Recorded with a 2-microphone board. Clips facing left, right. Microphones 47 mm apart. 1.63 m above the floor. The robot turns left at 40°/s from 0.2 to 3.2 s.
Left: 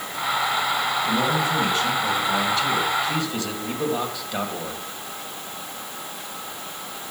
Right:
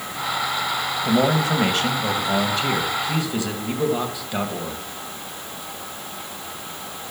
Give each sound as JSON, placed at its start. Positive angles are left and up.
{"t": 1.1, "sound": "a man speaking", "azimuth_deg": -80, "distance_m": 2.0}